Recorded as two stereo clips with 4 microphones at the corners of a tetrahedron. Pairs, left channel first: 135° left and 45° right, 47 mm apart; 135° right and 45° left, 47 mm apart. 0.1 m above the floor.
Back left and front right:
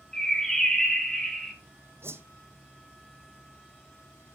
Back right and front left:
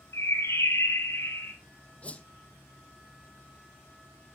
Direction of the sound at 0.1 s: 145° right.